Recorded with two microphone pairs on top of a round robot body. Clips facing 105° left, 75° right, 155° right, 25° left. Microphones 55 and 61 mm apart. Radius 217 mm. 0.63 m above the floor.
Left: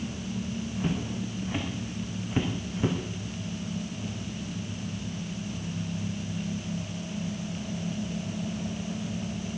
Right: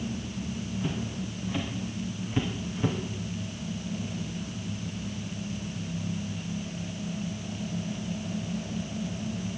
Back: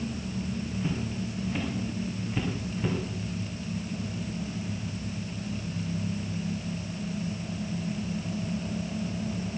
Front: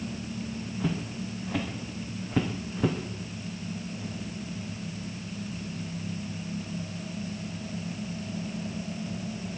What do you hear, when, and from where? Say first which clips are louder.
0.8 s footsteps: left 3 dB, front 3 dB; 45° left, 4 m; by 3.0 s 25° left, 2.5 m